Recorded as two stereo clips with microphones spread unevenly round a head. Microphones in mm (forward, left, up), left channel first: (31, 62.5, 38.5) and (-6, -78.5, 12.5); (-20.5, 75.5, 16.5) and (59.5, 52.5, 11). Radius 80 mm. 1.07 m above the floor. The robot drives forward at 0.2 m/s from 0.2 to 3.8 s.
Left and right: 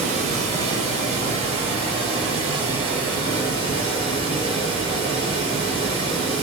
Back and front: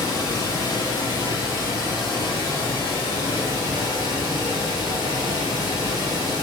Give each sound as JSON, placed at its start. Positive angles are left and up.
{"t": 0.0, "sound": "running water", "azimuth_deg": -135, "distance_m": 0.8}